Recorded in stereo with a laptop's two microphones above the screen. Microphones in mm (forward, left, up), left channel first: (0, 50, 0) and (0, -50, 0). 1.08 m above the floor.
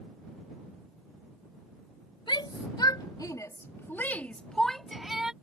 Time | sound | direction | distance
2.3 | a shout | 55° left (ahead or behind) | ?